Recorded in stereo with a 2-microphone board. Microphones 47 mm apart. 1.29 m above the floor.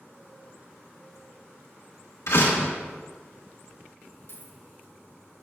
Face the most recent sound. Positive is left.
turn(degrees=45)  # may be behind; listen again after turning